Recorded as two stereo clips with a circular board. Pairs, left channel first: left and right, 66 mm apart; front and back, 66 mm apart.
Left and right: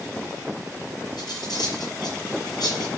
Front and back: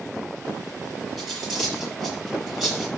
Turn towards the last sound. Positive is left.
turn(degrees=95)